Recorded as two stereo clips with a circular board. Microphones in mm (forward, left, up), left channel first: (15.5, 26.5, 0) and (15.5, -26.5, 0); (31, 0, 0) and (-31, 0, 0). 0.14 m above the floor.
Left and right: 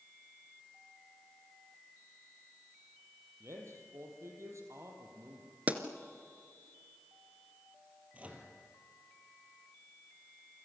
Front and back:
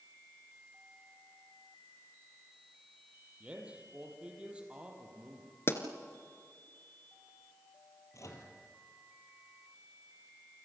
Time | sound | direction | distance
3.4 | a man speaking | 110° right | 5.5 m
5.7 | a pop | 35° right | 1.8 m
8.1 | a microwave | 25° right | 3.5 m